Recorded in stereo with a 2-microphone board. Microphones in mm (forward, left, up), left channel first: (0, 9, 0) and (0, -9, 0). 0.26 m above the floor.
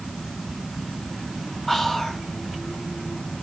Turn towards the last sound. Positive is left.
turn(degrees=20)  # may be behind; listen again after turning